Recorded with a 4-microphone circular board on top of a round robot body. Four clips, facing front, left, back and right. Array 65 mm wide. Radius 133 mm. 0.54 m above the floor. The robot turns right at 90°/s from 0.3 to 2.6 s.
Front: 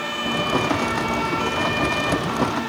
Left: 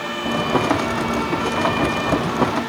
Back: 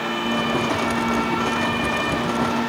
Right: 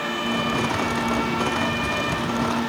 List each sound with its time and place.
Only background noise.